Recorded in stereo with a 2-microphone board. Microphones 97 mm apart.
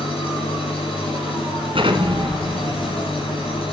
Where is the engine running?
70° left (ahead or behind), 6 m.